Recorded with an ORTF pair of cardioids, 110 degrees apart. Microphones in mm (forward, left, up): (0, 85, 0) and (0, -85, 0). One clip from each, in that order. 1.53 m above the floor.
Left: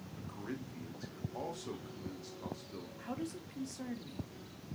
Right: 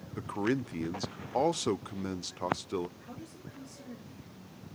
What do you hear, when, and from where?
0.2 s a man speaking: 70° right, 0.6 m
3.0 s a man speaking: 45° left, 2.5 m